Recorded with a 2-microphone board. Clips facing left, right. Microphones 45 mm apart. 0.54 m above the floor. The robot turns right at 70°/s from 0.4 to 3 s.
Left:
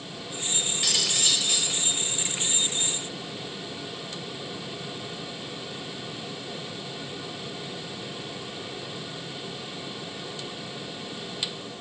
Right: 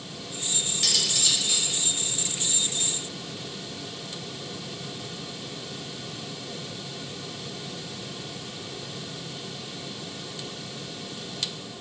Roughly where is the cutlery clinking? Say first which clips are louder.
Even; ahead.